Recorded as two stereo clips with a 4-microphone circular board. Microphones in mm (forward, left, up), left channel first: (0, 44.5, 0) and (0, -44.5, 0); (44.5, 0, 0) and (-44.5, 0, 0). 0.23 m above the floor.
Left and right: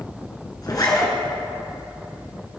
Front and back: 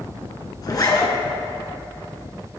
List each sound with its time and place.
0.6 s a zipper: 45° left, 1.9 m